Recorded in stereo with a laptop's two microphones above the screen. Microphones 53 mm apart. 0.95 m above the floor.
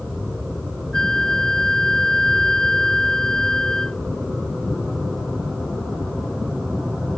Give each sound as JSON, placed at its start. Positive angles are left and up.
{"t": 0.9, "sound": "a flute", "side_deg": 10}